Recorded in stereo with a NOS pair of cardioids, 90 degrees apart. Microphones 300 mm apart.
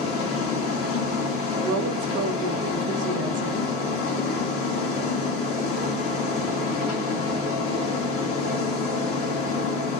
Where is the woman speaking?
55° right, 0.7 m.